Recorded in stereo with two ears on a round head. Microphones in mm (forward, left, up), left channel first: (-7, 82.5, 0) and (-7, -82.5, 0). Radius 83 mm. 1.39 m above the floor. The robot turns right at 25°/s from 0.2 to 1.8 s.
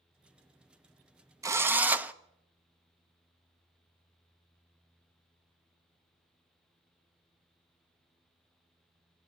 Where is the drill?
15° right (ahead or behind), 0.7 m; by 2.1 s 10° right (ahead or behind), 0.7 m.